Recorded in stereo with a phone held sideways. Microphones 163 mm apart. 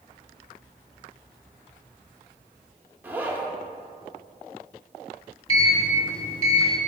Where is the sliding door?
35° left (ahead or behind), 1.4 m.